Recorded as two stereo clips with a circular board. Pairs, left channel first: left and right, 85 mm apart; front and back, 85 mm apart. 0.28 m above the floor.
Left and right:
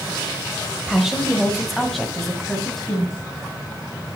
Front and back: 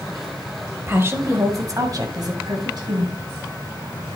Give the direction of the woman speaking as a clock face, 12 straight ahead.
6 o'clock.